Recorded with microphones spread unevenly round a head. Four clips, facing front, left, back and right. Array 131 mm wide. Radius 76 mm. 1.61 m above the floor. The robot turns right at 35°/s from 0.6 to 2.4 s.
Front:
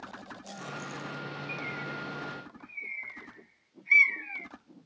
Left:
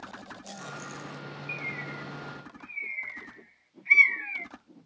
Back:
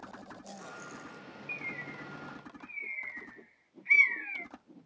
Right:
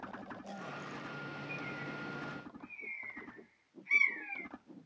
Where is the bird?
80° left, 1.2 m; by 4.5 s 110° left, 1.2 m.